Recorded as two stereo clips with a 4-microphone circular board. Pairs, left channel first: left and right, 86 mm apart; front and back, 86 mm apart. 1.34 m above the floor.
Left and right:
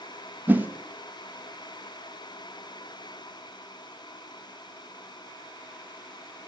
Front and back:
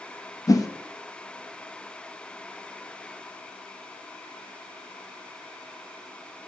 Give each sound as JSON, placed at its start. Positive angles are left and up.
{"t": 0.5, "sound": "a whoosh", "azimuth_deg": -25, "distance_m": 0.8}